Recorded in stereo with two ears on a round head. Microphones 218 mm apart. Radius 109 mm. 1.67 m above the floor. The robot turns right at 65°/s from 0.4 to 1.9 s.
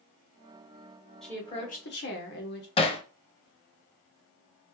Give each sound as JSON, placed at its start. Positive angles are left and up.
{"t": 1.2, "sound": "a woman speaking", "azimuth_deg": 0, "distance_m": 1.3}
{"t": 2.8, "sound": "hammering", "side_deg": 25, "distance_m": 0.7}